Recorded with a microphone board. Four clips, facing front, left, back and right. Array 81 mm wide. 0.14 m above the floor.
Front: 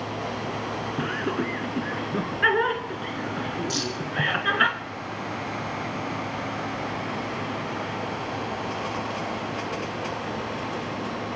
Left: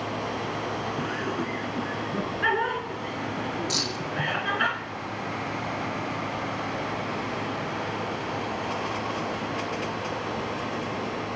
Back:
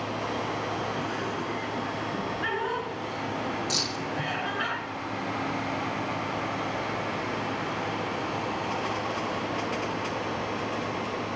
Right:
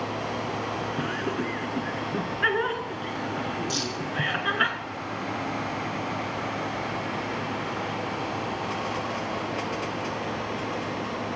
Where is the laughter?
15° right, 2 m.